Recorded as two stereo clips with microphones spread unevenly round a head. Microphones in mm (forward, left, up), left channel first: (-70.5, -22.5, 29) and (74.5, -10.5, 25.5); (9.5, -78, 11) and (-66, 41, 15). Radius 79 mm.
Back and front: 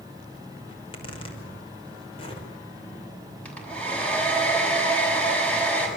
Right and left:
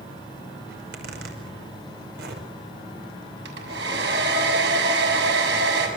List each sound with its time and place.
0.7 s a zipper: 125° left, 5.5 m
3.5 s a hair dryer: 105° left, 7 m